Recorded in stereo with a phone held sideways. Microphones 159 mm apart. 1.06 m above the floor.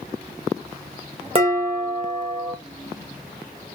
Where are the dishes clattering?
35° right (ahead or behind), 0.8 m.